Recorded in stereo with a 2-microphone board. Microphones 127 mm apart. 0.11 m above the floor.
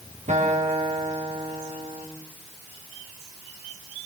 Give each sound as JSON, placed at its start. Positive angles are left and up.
{"t": 0.3, "sound": "a guitar", "side_deg": -80, "distance_m": 7.0}